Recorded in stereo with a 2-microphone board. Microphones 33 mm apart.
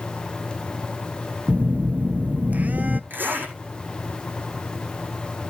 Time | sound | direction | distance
1.5 | a phone buzzing | 50° right (ahead or behind) | 0.7 m
3.1 | a zipper | 80° right | 5 m